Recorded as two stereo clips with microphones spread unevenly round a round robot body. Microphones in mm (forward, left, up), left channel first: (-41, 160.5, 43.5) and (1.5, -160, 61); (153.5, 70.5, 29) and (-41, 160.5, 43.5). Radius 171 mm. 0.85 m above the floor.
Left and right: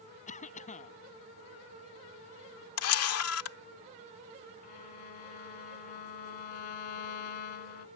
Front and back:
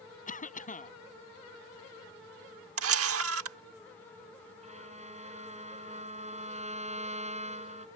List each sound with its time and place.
0.3 s a cough: 30° left
2.8 s a camera shutter: 145° left
4.6 s a violin: 95° left